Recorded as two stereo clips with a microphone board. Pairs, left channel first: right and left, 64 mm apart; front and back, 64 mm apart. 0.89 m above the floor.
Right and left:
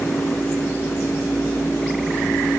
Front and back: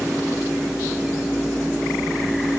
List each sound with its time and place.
Only background noise.